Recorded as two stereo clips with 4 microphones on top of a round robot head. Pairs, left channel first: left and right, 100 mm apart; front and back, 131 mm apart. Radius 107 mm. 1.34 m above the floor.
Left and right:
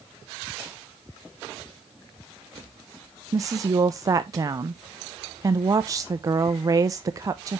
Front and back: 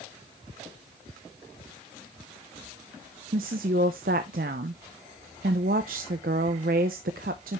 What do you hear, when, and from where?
3.3 s a woman speaking: 145° right, 0.5 m